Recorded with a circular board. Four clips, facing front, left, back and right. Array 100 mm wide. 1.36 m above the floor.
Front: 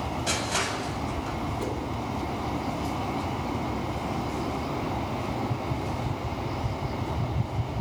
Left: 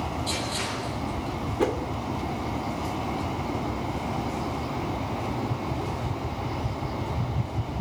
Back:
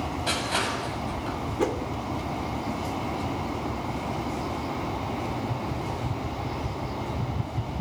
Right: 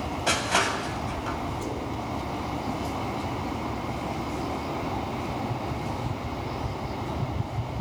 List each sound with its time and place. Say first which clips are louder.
0.3 s crushing: right 5 dB, back 2 dB; 100° right, 7.5 m
1.6 s a whoosh: left 7 dB, back 5 dB; 125° left, 2.5 m